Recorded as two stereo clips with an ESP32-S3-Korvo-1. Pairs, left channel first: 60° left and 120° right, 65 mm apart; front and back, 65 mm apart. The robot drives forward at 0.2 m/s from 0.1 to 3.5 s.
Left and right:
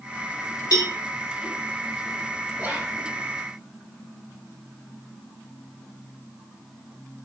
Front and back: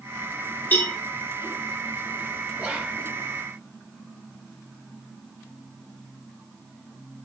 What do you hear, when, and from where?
0.7 s a cowbell: 60° left, 0.8 m; by 0.9 s 65° left, 0.8 m
2.6 s whispering: 125° right, 1.0 m; by 3.0 s 130° right, 1.0 m